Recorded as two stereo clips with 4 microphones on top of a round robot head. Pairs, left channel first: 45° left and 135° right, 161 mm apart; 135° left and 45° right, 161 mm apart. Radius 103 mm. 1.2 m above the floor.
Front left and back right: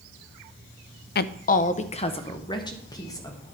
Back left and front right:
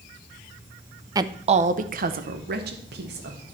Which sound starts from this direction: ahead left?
A woman speaking, at 1.1 s.